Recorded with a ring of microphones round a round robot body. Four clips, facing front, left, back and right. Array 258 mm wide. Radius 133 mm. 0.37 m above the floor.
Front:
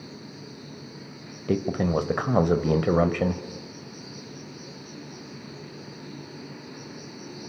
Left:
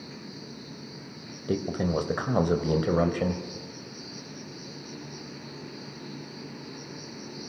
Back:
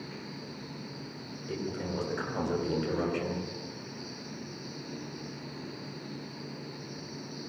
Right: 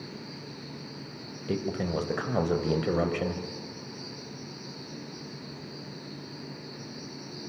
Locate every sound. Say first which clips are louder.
0.0 s an insect: right 1 dB, even; 20° right, 9 m
1.5 s a man speaking: left 3 dB, front 11 dB; 10° left, 2.5 m